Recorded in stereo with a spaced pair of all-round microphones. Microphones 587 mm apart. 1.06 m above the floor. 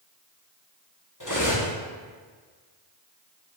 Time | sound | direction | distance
1.2 | cutlery clinking | 30° left (ahead or behind) | 1.1 m